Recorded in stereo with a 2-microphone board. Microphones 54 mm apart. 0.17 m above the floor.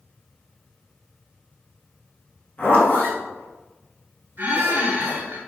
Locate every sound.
2.6 s a zipper: 35° left (ahead or behind), 1.4 m
4.4 s a squeak: 45° right (ahead or behind), 1.6 m